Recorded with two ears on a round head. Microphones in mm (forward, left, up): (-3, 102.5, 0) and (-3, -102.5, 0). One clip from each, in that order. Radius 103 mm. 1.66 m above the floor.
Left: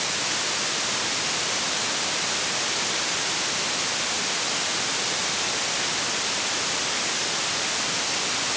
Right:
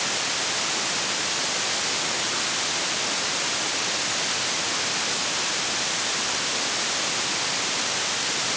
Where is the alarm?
No alarm in this recording.